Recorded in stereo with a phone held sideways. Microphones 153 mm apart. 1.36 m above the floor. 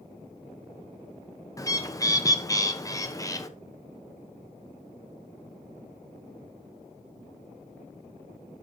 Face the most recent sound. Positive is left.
turn(degrees=20)  # may be behind; listen again after turning